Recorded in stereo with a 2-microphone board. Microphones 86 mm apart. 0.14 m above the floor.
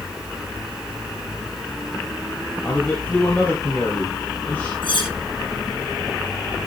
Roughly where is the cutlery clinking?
Left.